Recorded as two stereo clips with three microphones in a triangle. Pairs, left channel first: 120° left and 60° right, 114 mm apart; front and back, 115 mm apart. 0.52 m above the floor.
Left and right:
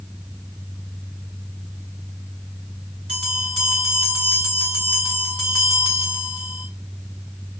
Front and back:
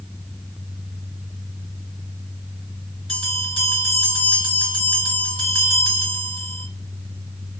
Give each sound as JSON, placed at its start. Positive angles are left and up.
{"t": 3.1, "sound": "a bell", "azimuth_deg": 20, "distance_m": 1.9}